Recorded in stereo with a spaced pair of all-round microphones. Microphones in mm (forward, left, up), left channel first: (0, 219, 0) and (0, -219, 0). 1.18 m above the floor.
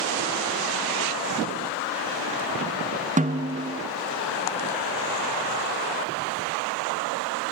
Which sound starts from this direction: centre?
A snare drum, at 3.2 s.